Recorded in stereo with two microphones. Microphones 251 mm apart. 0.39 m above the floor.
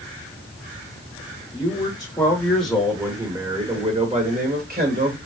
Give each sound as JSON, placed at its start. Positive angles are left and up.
{"t": 1.5, "sound": "a man speaking", "side_deg": 25, "distance_m": 1.5}